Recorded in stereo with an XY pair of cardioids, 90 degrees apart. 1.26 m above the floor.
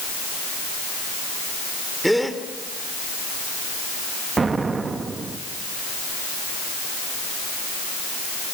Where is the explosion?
40° right, 2 m.